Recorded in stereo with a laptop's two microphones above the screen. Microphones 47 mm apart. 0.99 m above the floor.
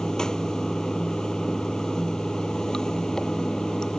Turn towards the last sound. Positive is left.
turn(degrees=15)  # may be behind; listen again after turning